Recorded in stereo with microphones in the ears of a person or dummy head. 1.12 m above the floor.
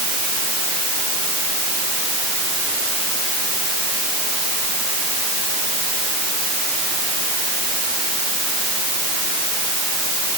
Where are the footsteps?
No footsteps in this recording.